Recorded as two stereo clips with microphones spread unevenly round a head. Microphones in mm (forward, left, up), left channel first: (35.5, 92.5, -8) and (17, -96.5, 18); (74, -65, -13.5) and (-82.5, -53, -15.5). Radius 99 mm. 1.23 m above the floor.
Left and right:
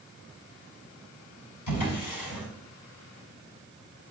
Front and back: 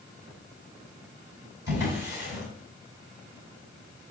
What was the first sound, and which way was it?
A drawer, 100° left.